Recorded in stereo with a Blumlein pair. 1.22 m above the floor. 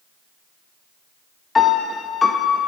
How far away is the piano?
About 0.5 m.